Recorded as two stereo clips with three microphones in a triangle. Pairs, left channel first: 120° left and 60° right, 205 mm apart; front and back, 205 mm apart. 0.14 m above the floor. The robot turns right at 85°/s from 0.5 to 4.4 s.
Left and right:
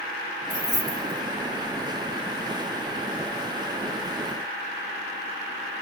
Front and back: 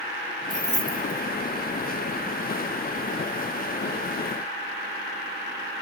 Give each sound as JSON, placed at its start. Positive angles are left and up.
{"t": 0.5, "sound": "keys jangling", "azimuth_deg": -115, "distance_m": 3.0}